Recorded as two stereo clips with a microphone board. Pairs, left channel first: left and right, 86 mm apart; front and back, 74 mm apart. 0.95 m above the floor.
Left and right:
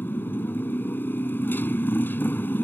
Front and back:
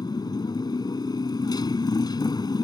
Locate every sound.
0.0 s a motorcycle: 25° left